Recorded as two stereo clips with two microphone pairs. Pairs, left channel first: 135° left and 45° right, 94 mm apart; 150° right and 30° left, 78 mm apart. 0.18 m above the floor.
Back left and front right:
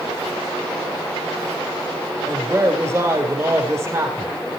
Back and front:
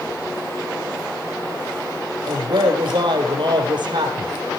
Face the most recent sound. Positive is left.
turn(degrees=15)